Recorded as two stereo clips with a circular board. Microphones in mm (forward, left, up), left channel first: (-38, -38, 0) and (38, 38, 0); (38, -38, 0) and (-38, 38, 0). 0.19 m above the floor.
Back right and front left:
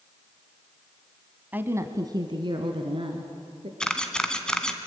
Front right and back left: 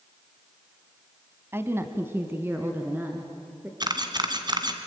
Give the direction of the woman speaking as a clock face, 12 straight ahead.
9 o'clock.